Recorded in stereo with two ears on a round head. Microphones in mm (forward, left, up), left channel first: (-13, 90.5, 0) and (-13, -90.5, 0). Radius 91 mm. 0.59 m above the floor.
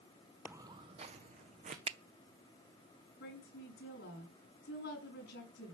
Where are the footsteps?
10° right (ahead or behind), 0.6 m; by 1.8 s 40° right (ahead or behind), 2.0 m.